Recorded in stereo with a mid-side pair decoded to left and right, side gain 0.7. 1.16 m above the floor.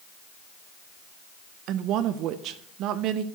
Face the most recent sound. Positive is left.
turn(degrees=-60)